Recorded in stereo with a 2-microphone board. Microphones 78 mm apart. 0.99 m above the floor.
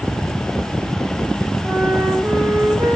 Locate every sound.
1.6 s a flute: 50° right (ahead or behind), 5.5 m